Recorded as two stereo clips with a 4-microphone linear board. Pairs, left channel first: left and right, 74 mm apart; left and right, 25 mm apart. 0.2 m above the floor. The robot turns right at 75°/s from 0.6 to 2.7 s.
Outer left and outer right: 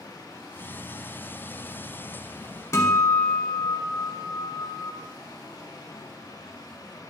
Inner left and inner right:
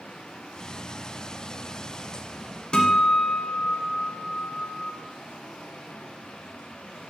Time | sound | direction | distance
2.7 | a guitar | 45° left (ahead or behind) | 1.5 m